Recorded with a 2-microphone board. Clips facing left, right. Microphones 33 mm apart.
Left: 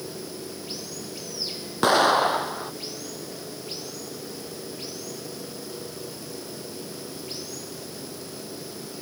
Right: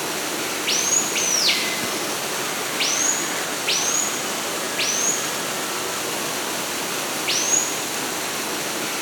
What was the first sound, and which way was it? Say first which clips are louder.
Running water: right 10 dB; 90° right.